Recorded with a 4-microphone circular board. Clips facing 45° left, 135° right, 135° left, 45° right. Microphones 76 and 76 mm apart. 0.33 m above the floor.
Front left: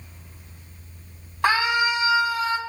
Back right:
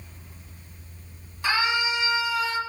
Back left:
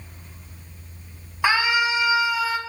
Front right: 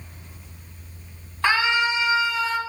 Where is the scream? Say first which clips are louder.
Front left 4 dB, even; 60° left, 2.5 m; by 2.6 s 55° left, 1.5 m.